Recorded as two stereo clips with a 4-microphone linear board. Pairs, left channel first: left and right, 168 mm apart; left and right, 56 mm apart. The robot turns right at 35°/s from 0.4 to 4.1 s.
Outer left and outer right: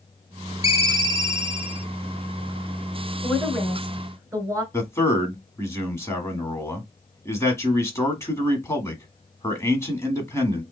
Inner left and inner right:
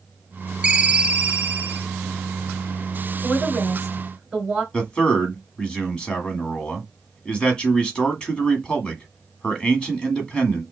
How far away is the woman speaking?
About 2 m.